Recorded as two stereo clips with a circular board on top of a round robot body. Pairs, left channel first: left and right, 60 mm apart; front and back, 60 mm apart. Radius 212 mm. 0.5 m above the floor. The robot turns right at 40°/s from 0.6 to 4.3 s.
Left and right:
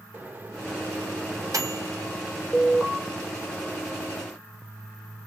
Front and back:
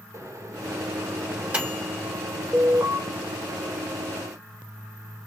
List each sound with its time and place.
0.1 s a microwave: 150° right, 1.4 m; by 2.1 s 90° right, 1.4 m
2.5 s an alarm: 145° left, 2 m; by 3.0 s 165° left, 2 m